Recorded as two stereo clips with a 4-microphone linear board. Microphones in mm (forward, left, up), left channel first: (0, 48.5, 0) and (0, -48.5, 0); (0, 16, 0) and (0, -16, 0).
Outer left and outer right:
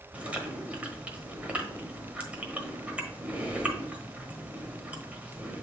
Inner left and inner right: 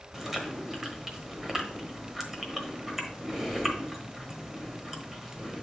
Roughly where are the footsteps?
I don't hear footsteps.